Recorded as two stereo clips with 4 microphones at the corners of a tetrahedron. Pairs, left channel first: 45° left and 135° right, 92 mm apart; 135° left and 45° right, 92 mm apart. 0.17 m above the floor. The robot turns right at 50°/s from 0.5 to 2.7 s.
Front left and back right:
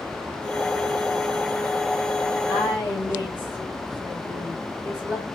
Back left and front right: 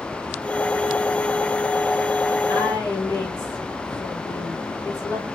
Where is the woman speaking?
85° left, 2.0 m; by 5.3 s 95° left, 2.0 m.